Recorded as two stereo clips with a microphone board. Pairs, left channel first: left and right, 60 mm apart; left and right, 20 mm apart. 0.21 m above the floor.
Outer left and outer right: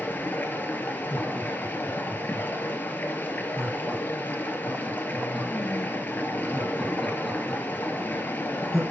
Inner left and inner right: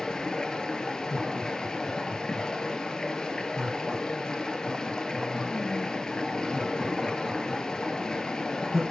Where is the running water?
30° left (ahead or behind), 2.5 m.